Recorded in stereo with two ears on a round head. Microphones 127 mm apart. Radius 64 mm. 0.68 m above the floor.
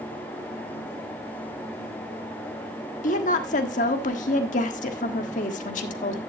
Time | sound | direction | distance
3.0 | a woman speaking | 55° left (ahead or behind) | 1.4 m